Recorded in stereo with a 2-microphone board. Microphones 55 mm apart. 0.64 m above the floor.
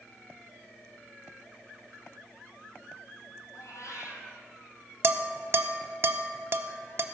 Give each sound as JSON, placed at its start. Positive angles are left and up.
{"t": 3.5, "sound": "a cat meowing", "side_deg": 75, "distance_m": 2.0}
{"t": 5.0, "sound": "dishes clattering", "side_deg": -50, "distance_m": 0.6}